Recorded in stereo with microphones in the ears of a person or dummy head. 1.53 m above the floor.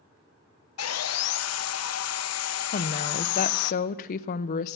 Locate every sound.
0.8 s sawing: 75° left (ahead or behind), 0.6 m
2.7 s a woman speaking: 50° left (ahead or behind), 0.7 m